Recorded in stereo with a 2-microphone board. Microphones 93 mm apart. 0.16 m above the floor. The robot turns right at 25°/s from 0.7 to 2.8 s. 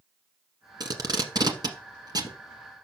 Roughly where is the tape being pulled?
Right.